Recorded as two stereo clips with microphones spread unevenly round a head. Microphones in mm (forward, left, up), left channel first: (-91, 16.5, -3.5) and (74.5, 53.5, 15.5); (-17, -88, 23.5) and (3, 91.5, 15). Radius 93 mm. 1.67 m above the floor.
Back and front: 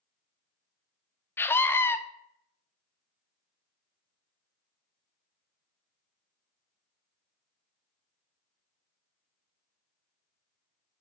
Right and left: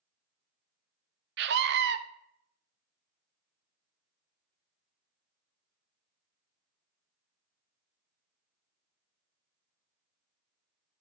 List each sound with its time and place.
1.4 s a scream: 115° left, 0.6 m